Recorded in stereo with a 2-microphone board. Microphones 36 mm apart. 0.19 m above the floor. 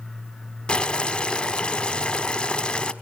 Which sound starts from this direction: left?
Boiling, at 0.7 s.